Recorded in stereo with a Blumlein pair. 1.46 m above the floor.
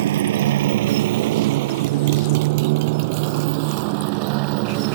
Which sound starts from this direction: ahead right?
A motorcycle, at 0.0 s.